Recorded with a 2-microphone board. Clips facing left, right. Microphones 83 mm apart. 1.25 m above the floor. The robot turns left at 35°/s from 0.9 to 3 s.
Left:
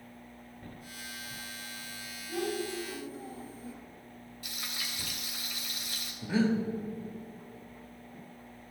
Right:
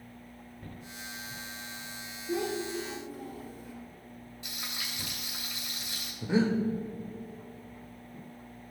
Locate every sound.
2.3 s a child speaking: 85° right, 3 m; by 3.7 s 65° right (ahead or behind), 3 m
4.4 s frying: 20° right (ahead or behind), 2.5 m
6.2 s breathing: 20° right (ahead or behind), 1.3 m